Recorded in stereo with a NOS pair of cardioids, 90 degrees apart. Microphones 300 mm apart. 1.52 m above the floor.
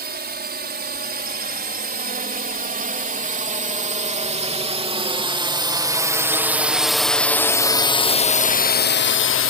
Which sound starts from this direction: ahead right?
A drone, at 0.0 s.